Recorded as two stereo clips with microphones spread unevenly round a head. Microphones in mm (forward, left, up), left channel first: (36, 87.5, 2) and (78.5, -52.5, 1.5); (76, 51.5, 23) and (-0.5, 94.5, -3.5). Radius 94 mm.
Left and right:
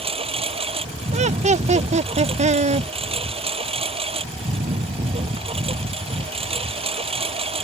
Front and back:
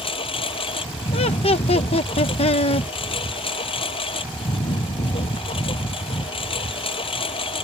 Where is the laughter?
30° right.